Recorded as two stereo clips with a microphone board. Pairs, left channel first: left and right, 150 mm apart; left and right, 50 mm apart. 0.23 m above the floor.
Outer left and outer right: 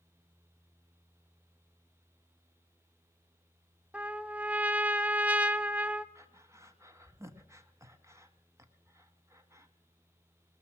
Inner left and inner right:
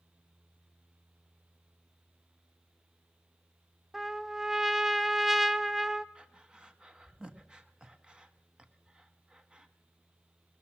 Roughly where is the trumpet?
Centre.